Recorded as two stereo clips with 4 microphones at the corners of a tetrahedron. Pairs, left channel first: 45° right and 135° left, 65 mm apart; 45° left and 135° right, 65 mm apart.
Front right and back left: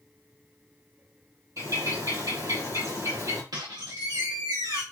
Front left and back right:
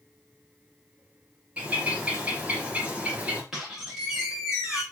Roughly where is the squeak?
Behind left.